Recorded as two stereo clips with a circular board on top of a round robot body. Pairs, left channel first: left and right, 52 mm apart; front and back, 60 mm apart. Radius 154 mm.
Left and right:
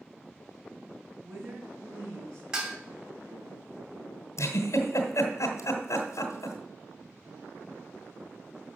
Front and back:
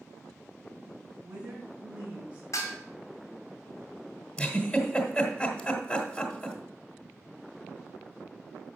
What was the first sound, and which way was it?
A woman speaking, 110° right.